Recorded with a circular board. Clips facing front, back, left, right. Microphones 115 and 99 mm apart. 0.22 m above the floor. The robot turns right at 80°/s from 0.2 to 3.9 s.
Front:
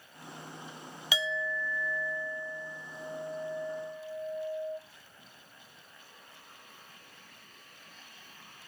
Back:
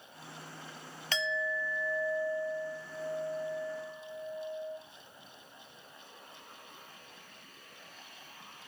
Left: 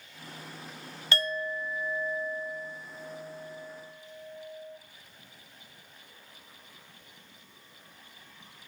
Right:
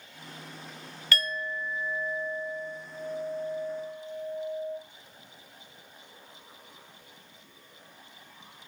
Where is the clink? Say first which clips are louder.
Even, left 1 dB; 65° left, 0.6 m; by 4.8 s 70° right, 0.6 m.